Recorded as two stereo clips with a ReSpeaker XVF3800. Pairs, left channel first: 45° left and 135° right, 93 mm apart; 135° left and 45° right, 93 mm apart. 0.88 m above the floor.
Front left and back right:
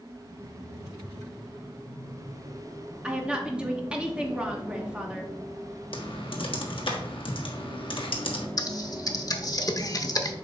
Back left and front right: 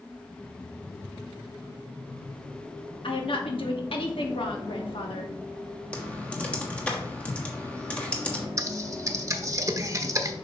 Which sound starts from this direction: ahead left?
Typing on a keyboard, at 5.9 s.